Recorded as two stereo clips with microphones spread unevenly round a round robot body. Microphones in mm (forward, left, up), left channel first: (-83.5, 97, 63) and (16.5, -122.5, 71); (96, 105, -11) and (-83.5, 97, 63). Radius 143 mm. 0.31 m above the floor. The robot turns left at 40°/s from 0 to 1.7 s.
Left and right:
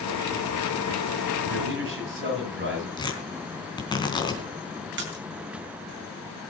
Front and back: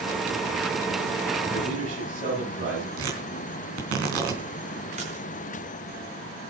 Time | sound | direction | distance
1.5 | a man speaking | 105° right | 9.5 m
3.0 | tearing paper | 175° right | 3.5 m
5.0 | a splash | 105° right | 4 m